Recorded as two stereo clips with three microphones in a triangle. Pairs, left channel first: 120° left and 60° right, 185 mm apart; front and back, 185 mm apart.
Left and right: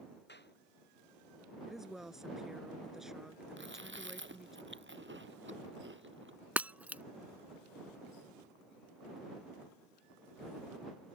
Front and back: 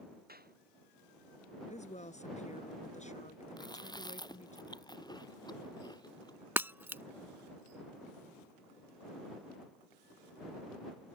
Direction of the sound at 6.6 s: 125° right.